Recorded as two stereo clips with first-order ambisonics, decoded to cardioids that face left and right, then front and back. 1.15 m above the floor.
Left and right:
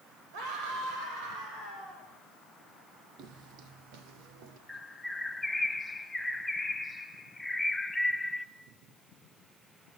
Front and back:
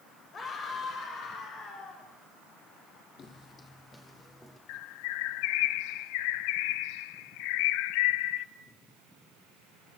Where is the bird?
5° left, 0.8 m.